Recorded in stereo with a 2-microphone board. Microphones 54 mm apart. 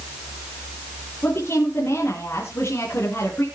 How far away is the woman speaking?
About 3.5 m.